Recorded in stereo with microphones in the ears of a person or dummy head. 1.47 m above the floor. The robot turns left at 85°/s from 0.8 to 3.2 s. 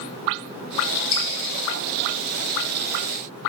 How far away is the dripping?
About 7 m.